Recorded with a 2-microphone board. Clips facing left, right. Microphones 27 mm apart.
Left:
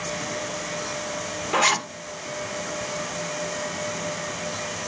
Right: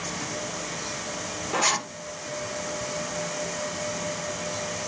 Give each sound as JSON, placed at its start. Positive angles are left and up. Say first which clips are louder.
{"t": 1.5, "sound": "a zipper", "louder": "left 4 dB", "side_deg": 30, "distance_m": 0.6}